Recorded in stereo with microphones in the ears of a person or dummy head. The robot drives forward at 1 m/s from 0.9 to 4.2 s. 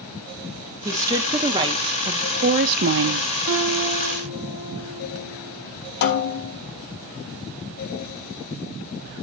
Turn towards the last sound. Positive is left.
turn(degrees=60)  # may be behind; listen again after turning